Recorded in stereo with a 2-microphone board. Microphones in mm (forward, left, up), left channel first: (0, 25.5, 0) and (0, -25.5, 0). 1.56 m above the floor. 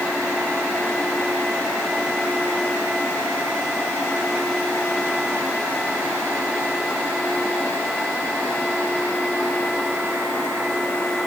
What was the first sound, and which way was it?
Only background noise.